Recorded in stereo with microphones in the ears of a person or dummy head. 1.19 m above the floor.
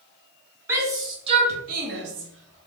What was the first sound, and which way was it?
A shout, 10° right (ahead or behind).